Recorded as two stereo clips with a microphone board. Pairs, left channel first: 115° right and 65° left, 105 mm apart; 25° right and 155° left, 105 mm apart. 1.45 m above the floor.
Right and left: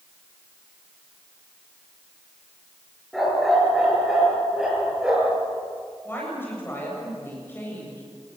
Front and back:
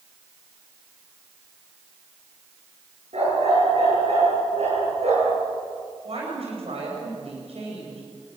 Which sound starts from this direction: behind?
A woman speaking, at 6.0 s.